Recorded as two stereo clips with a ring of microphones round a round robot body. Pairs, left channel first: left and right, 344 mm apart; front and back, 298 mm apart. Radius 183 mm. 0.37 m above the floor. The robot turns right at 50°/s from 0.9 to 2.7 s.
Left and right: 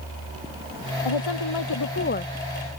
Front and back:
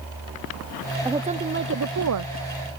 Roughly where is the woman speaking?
Left.